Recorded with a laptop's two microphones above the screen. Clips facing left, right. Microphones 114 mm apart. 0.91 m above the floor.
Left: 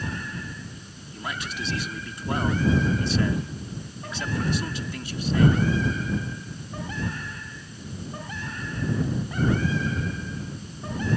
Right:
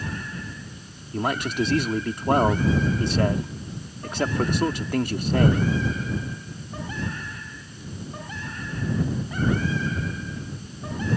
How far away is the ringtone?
No ringtone in this recording.